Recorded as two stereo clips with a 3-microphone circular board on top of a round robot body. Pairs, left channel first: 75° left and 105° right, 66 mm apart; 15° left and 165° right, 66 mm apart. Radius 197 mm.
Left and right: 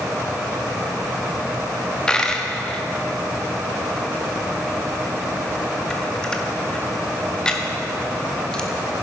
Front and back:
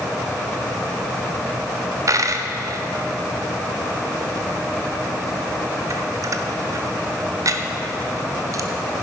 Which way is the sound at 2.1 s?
155° left.